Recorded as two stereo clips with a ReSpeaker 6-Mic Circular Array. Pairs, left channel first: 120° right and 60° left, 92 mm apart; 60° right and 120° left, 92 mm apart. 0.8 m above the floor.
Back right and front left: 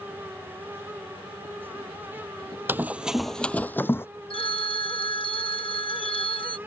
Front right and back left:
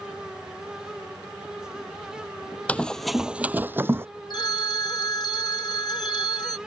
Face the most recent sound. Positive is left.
turn(degrees=-100)